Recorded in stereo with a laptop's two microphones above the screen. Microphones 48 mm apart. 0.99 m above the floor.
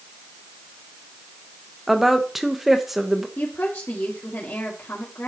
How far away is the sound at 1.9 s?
About 1.0 m.